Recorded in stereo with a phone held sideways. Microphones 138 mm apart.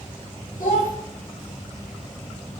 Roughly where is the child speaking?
Left.